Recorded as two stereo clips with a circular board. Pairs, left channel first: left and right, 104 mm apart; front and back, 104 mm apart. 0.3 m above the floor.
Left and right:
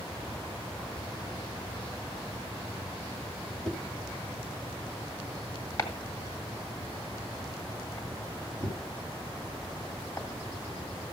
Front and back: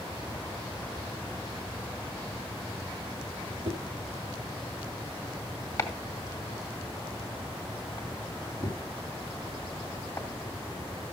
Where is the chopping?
45° left, 2 m.